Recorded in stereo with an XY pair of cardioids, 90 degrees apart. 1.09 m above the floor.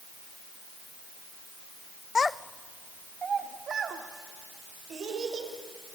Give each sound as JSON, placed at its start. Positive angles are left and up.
{"t": 2.1, "sound": "a child speaking", "azimuth_deg": 45, "distance_m": 0.6}